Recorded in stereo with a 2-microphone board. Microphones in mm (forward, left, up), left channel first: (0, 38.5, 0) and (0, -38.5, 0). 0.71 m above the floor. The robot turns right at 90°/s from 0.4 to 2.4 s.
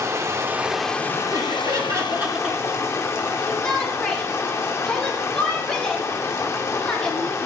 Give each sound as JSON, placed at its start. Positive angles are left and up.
{"t": 0.0, "sound": "running water", "azimuth_deg": -35, "distance_m": 0.7}
{"t": 1.3, "sound": "laughter", "azimuth_deg": -110, "distance_m": 1.3}
{"t": 3.4, "sound": "a shout", "side_deg": 10, "distance_m": 1.7}